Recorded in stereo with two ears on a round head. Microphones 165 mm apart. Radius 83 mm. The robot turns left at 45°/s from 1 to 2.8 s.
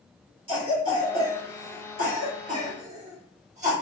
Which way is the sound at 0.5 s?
30° right (ahead or behind).